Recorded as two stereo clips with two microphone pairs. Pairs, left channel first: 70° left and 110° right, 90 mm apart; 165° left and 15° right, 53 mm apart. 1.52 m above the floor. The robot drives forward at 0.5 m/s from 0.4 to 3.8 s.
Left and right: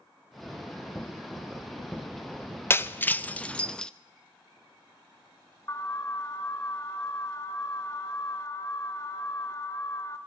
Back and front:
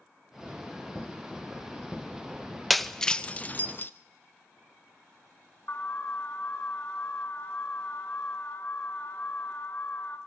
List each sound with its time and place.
2.7 s breaking glass: 70° left, 0.7 m; by 3.9 s 145° left, 0.8 m
5.7 s an alarm: 125° left, 1.6 m